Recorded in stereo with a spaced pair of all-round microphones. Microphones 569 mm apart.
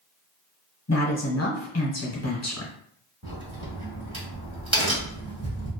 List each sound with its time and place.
0.9 s a woman speaking: 30° left (ahead or behind), 0.7 m
3.2 s a crack: 10° left (ahead or behind), 1.5 m